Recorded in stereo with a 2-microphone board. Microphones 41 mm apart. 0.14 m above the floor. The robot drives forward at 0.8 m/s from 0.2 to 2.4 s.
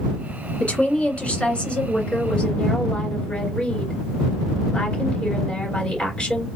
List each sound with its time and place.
0.6 s a woman speaking: 30° left (ahead or behind), 1.7 m; by 6.5 s 25° left (ahead or behind), 2.5 m